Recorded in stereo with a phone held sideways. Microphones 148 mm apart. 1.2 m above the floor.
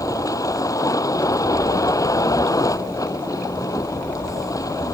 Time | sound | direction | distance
0.0 | a vehicle | 25° left (ahead or behind) | ?